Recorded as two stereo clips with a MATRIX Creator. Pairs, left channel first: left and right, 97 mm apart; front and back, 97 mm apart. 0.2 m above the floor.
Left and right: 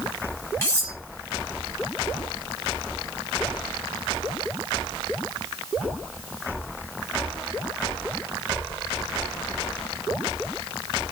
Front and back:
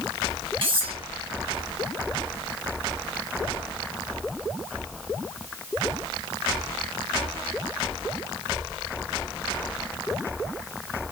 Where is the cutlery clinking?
155° left, 2.5 m.